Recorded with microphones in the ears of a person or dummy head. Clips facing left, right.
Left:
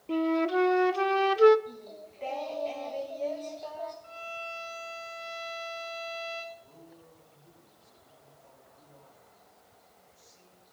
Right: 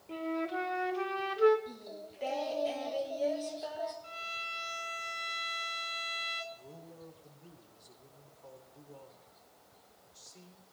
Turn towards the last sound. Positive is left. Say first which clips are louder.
# right 1 dB
turn(degrees=-85)